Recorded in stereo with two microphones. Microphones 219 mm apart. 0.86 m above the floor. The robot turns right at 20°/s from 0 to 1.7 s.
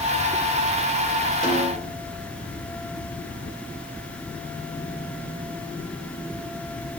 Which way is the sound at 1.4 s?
40° left (ahead or behind).